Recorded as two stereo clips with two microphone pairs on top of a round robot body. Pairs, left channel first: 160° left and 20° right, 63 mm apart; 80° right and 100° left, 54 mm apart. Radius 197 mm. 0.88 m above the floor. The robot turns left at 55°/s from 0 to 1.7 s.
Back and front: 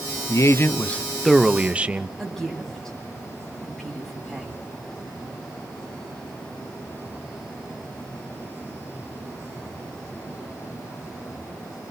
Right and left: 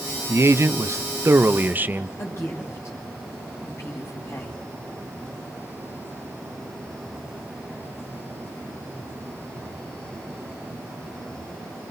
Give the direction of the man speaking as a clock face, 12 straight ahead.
8 o'clock.